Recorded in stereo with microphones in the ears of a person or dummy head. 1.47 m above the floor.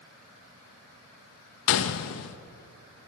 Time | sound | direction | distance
1.7 | a gunshot | 65° left (ahead or behind) | 1.1 m